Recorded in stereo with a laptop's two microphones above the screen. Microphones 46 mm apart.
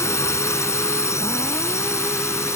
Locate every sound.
0.0 s a drone: 85° left